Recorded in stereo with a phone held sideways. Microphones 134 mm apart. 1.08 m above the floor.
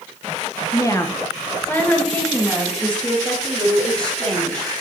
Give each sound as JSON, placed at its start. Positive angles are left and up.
{"t": 0.7, "sound": "a woman speaking", "side_deg": 25, "distance_m": 0.8}